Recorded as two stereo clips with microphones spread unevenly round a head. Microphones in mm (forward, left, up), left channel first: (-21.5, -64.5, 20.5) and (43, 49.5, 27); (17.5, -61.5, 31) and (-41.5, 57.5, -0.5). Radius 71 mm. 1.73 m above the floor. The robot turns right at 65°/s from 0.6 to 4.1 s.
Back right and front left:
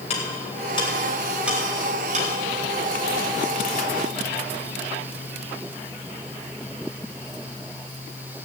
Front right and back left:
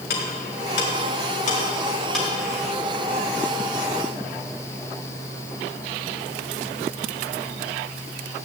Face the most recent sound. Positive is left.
turn(degrees=150)